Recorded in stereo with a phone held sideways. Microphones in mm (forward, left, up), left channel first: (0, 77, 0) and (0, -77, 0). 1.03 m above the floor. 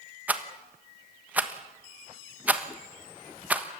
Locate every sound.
0.3 s a rattle: 10° right (ahead or behind), 1.3 m